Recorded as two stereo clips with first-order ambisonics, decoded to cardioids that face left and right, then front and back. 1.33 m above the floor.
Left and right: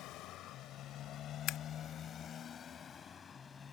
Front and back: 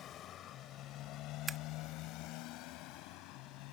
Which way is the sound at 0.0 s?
50° left.